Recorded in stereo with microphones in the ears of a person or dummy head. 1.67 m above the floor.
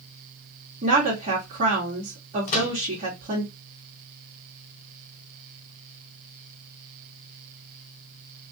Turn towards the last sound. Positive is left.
turn(degrees=40)  # may be behind; listen again after turning